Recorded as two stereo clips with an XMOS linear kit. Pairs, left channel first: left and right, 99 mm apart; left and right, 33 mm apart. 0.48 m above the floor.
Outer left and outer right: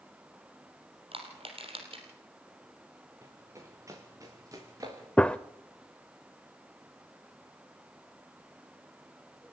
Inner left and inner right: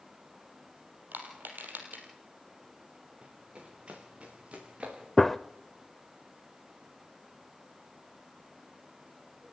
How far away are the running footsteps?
About 4.5 m.